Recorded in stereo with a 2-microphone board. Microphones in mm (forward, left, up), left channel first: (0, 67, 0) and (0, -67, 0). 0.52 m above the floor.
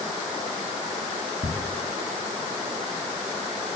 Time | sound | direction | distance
1.4 | ticking | 25° left (ahead or behind) | 1.2 m